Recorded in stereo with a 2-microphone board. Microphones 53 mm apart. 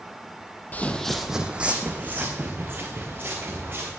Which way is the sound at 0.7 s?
30° left (ahead or behind).